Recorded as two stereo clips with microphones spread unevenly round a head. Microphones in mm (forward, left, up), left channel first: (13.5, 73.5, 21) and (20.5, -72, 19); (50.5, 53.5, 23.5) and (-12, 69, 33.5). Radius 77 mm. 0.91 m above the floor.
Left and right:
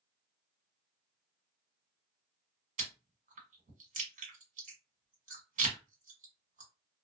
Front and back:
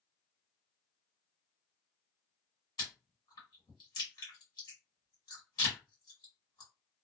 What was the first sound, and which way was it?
Chewing, 55° right.